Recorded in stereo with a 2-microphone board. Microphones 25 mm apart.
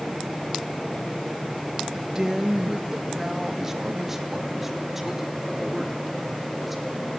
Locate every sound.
1.9 s a man speaking: 25° right (ahead or behind), 1.5 m; by 7.1 s 5° right (ahead or behind), 4 m